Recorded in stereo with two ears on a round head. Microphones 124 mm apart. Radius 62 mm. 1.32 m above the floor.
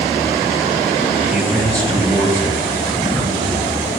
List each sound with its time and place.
1.3 s a man speaking: 5° right (ahead or behind), 1.3 m; by 3.7 s 20° left (ahead or behind), 4 m